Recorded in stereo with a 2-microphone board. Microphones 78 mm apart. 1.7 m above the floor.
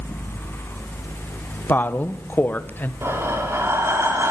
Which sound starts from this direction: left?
A woman speaking, at 1.7 s.